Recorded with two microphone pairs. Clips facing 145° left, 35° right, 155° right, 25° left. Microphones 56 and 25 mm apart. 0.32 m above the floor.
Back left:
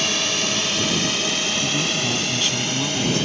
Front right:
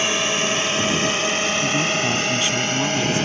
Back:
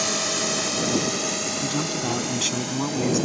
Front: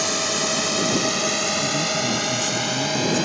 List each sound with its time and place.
0.0 s a drone: 50° right; by 3.2 s 5° right
1.6 s a man speaking: 105° right